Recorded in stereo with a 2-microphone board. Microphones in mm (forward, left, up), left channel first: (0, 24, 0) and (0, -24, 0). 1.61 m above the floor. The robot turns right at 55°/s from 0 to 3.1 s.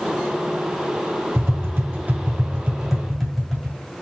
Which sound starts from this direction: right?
Tapping, at 1.4 s.